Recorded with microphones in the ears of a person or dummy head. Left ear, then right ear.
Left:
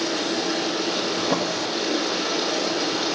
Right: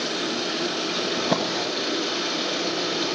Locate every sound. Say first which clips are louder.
0.0 s running water: left 2 dB; 35° right (ahead or behind), 7.5 m
1.2 s a drawer: even; 40° right (ahead or behind), 1.5 m